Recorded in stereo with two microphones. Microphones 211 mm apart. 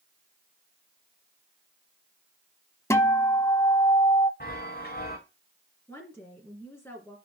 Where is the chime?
45° left (ahead or behind), 5 m.